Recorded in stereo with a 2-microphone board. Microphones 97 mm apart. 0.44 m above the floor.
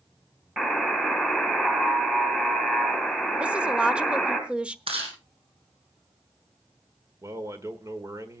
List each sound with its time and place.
0.6 s a buzzer: 5° right (ahead or behind), 3.5 m
3.4 s a woman speaking: 10° right (ahead or behind), 0.9 m
4.9 s chewing: 85° right, 4.5 m
7.2 s a man speaking: 35° right (ahead or behind), 1.7 m